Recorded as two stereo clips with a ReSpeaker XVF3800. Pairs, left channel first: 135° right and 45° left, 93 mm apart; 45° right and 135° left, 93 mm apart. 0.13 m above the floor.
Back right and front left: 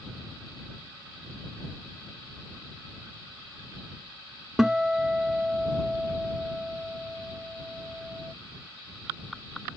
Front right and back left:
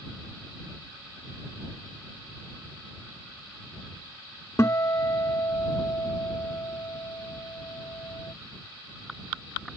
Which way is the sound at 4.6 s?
35° right.